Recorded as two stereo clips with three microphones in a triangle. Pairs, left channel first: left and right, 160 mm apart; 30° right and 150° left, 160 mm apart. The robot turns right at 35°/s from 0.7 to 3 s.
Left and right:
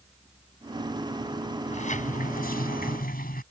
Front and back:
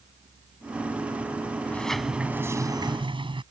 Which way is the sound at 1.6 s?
45° left.